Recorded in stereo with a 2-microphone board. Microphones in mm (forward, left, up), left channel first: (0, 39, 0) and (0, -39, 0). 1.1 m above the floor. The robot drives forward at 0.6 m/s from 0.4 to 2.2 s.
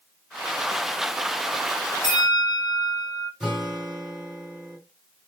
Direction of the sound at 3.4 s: 10° right (ahead or behind).